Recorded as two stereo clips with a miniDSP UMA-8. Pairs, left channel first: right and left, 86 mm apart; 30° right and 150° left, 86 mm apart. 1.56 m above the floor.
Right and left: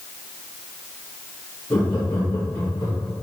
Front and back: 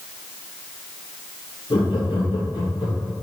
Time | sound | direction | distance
1.7 | laughter | 30° right | 3 m